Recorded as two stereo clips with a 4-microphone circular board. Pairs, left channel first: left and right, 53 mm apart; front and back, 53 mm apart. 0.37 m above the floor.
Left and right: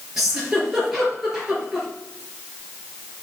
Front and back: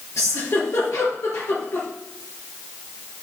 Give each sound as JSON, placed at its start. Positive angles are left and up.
{"t": 0.2, "sound": "a giggle", "azimuth_deg": -5, "distance_m": 4.0}